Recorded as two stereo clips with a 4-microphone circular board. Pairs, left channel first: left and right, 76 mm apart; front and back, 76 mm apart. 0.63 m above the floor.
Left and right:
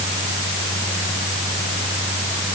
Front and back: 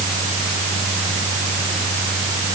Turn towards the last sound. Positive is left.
No sound to turn to.